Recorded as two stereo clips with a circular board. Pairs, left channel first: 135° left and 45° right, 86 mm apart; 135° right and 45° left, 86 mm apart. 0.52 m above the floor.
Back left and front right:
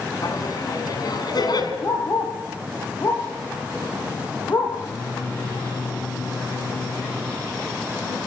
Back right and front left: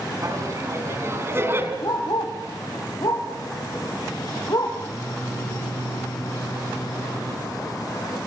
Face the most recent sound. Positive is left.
turn(degrees=170)